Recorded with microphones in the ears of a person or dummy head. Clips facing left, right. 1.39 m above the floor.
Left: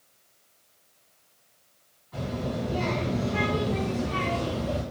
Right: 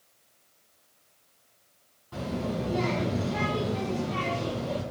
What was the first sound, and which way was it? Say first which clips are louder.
A child speaking: even; 50° right (ahead or behind).